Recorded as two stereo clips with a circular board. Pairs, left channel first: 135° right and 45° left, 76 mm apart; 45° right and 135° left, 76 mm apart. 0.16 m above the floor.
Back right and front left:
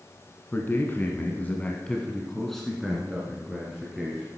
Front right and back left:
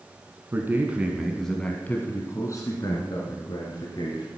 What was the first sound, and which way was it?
A man speaking, 175° left.